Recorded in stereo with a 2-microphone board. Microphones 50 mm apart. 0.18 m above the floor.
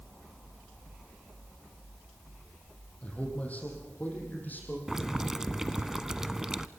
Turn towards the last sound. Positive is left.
turn(degrees=-10)  # may be behind; listen again after turning